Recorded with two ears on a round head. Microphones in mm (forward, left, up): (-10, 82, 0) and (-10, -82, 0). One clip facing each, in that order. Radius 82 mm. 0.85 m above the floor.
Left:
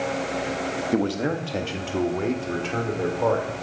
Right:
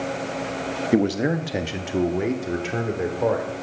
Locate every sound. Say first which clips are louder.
0.9 s a man speaking: right 4 dB; 20° right (ahead or behind), 0.7 m; by 3.6 s 10° right (ahead or behind), 2.5 m